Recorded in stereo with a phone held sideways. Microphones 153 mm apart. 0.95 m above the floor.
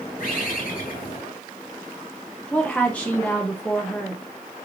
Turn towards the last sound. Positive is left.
turn(degrees=10)  # may be behind; listen again after turning